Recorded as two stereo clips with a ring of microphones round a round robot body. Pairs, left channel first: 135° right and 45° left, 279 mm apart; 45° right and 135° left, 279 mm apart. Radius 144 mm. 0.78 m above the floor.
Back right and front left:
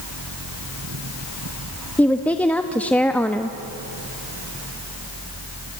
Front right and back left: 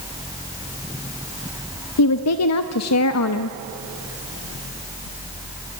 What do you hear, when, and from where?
2.0 s a woman speaking: 50° right, 0.8 m